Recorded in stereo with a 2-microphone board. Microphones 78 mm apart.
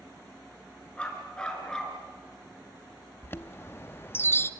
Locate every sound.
1.0 s a dog barking: 15° left (ahead or behind), 3 m; by 2.0 s 10° left (ahead or behind), 3.5 m
3.2 s a chime: 30° left (ahead or behind), 0.6 m